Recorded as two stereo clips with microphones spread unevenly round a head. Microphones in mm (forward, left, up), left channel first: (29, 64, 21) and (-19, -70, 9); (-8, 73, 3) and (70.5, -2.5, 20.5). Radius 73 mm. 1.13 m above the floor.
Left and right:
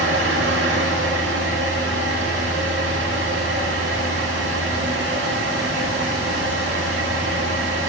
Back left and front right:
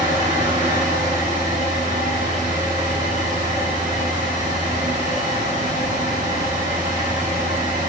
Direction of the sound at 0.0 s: 105° right.